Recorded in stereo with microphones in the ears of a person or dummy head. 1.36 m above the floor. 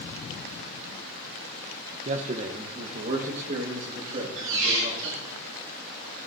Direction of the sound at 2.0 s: 35° right (ahead or behind).